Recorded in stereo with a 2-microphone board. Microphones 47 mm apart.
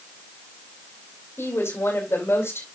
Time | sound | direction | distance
1.4 | a woman speaking | 60° left (ahead or behind) | 3.5 m